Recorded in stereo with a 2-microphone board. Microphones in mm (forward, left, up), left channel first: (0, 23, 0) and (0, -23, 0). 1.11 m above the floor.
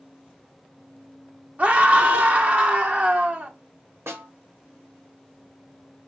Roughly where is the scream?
Right.